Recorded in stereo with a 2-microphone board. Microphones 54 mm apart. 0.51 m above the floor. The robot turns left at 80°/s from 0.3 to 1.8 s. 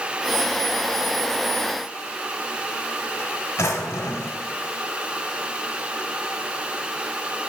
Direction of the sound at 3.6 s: 75° left (ahead or behind).